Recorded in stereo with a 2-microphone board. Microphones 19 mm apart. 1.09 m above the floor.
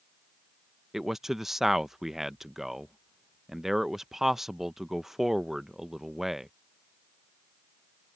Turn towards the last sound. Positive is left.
turn(degrees=-20)  # may be behind; listen again after turning